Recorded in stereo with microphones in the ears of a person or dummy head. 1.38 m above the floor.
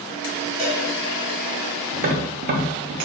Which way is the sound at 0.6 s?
25° right (ahead or behind).